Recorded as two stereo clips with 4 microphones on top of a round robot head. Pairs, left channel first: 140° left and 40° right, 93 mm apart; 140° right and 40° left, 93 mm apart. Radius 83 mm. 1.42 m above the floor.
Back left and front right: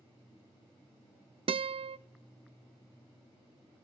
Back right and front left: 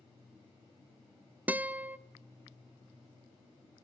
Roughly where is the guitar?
Ahead right.